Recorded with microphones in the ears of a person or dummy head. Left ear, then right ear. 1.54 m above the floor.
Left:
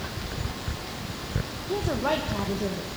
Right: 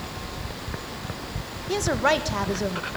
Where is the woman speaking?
70° right (ahead or behind), 1.6 m; by 2.9 s 55° right (ahead or behind), 2 m.